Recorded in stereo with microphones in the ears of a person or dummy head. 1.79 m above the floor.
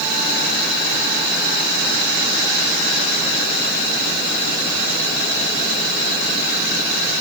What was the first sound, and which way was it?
Only background noise.